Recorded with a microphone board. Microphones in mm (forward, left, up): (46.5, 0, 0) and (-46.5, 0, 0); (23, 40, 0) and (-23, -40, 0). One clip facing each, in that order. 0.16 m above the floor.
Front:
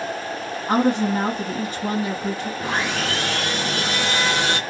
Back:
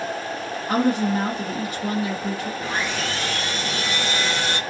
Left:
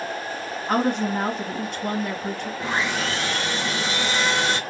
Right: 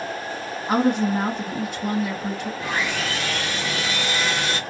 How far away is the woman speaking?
About 2.0 m.